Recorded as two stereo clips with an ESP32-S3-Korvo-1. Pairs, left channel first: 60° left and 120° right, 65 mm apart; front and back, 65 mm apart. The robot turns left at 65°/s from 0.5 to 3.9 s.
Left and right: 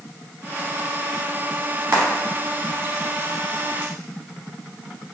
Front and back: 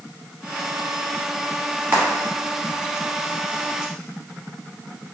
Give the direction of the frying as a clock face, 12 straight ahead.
4 o'clock.